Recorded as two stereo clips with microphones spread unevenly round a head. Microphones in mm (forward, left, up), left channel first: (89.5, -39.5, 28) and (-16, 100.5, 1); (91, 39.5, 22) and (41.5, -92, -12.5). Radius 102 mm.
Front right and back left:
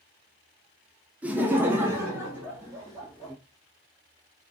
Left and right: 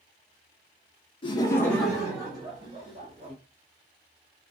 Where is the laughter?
90° left, 0.6 m; by 3.4 s 155° right, 1.4 m.